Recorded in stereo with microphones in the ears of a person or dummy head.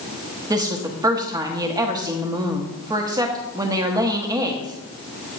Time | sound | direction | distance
0.5 | a woman speaking | 15° right (ahead or behind) | 1.0 m